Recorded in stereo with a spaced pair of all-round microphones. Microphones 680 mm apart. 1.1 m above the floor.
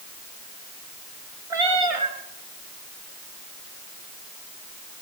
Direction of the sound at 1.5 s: 55° right (ahead or behind).